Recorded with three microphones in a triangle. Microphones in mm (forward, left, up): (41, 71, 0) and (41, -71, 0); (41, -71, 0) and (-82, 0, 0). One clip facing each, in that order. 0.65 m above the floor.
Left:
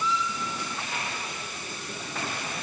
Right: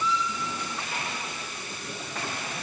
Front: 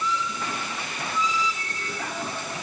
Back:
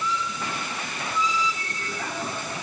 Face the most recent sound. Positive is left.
No sound to turn to.